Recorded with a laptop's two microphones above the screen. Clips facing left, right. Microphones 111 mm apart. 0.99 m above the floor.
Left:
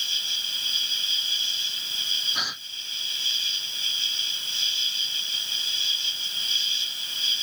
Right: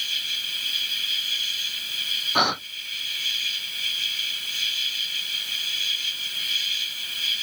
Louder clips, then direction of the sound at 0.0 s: Right 1 dB; 30° left (ahead or behind).